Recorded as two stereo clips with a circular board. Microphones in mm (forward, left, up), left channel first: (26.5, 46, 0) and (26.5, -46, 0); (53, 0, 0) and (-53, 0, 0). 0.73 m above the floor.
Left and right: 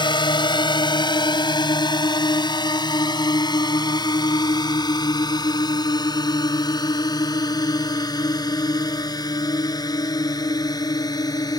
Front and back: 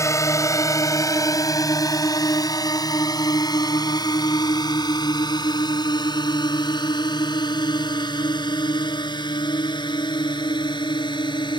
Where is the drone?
60° left; by 11.6 s 45° left.